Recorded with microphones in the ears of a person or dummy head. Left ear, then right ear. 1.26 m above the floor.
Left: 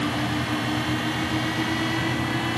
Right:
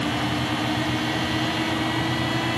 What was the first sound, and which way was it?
Only background noise.